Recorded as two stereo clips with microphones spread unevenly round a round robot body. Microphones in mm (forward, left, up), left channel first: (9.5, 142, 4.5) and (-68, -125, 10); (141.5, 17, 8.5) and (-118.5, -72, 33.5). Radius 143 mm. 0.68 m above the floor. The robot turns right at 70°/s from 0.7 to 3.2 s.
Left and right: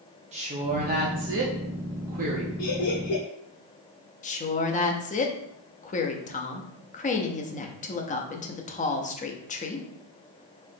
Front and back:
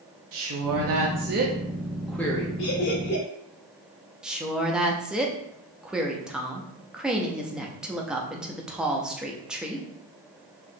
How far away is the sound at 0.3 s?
About 0.8 m.